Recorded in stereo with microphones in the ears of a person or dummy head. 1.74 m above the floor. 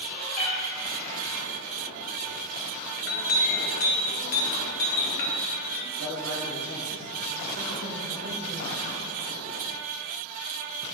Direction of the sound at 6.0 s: 70° right (ahead or behind).